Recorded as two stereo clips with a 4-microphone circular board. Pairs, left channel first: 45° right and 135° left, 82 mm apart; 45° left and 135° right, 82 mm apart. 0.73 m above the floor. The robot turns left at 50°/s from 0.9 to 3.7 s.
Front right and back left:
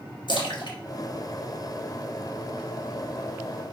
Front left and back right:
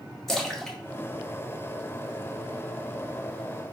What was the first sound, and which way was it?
A splash, 40° right.